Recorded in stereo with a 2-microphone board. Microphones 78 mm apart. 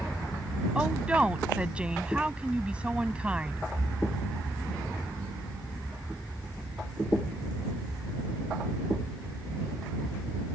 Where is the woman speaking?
15° right (ahead or behind).